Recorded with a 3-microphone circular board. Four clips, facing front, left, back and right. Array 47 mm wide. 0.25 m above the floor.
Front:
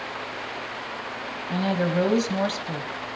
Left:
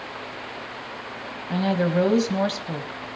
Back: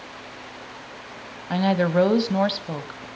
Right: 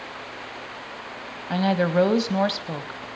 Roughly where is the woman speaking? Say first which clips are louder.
Right 1 dB, back 4 dB; behind right.